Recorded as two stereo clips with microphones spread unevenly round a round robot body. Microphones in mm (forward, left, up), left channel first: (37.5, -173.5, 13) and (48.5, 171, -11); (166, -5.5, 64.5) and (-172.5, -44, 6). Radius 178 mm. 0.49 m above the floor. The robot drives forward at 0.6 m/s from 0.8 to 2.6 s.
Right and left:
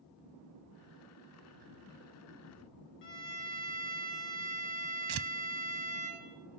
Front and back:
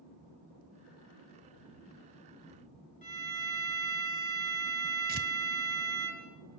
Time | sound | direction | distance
3.0 | a violin | 65° right | 9 m
5.1 | tearing paper | 120° left | 0.6 m